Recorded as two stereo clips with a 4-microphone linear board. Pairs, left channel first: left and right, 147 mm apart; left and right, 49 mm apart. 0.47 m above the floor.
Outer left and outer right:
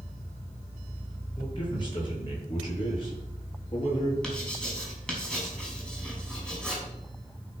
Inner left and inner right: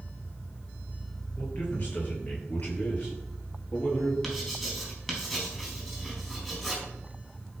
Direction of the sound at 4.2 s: 5° left (ahead or behind).